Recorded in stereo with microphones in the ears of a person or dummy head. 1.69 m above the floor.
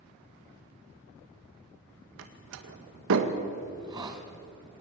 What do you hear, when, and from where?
2.2 s a door slam: 70° right (ahead or behind), 1.9 m
3.7 s a hiss: 20° right (ahead or behind), 2 m